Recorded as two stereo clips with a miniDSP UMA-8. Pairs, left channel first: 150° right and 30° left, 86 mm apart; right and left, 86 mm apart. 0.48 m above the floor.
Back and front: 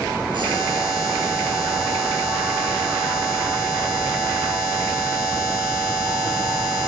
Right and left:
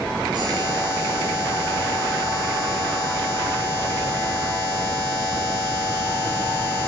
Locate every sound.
0.3 s a buzzer: 55° left, 9.5 m